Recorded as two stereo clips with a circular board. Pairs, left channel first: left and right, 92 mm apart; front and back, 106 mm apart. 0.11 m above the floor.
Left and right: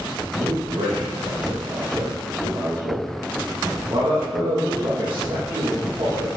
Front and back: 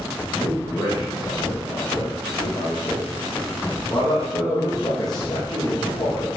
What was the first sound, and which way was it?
A man speaking, 50° right.